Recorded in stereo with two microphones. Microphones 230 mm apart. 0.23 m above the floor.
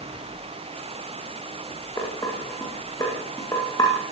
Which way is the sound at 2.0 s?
15° left (ahead or behind).